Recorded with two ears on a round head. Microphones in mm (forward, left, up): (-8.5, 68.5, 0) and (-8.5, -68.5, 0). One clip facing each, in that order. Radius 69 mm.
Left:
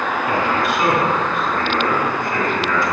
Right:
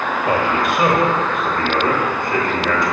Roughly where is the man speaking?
Right.